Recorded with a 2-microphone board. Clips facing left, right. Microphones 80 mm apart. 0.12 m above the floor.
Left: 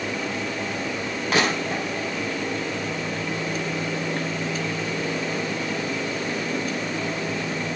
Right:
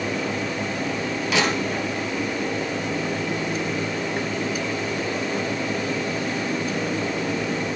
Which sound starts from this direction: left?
Crushing, at 1.3 s.